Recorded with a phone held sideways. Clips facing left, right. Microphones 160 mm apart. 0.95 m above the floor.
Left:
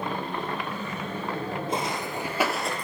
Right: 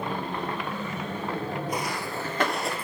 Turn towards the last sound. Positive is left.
turn(degrees=-10)  # may be behind; listen again after turning